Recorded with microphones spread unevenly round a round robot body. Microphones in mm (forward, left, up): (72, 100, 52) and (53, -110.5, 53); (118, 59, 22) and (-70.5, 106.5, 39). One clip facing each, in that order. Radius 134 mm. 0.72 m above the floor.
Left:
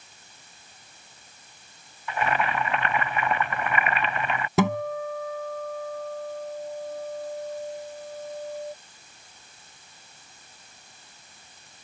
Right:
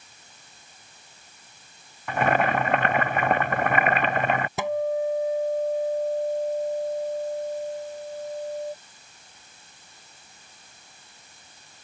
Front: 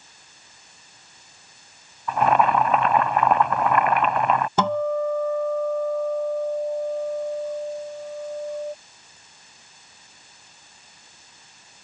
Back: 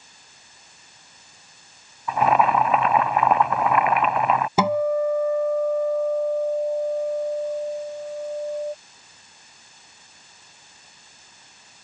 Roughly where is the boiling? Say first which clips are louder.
Right 4 dB, even; behind right.